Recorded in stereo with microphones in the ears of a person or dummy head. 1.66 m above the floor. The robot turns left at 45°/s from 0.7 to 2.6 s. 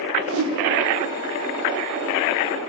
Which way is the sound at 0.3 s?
80° right.